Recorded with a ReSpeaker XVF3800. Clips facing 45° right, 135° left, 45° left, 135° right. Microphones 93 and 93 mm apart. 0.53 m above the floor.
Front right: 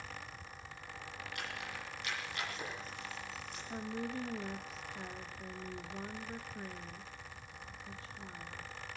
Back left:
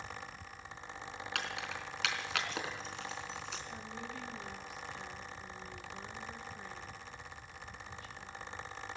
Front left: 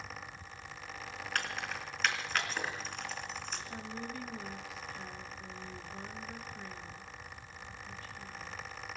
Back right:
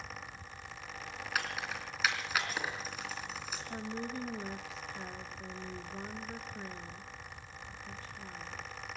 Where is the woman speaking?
85° right, 0.9 m.